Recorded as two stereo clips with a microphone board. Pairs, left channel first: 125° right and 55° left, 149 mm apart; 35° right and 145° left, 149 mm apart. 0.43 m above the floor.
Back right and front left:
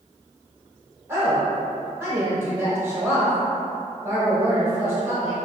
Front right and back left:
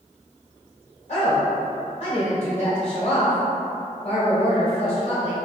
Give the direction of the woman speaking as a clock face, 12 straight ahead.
12 o'clock.